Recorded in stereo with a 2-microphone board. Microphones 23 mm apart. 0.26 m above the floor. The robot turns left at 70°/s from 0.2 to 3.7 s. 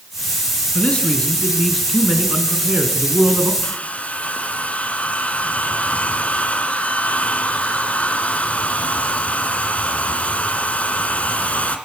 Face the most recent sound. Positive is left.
turn(degrees=70)  # may be behind; listen again after turning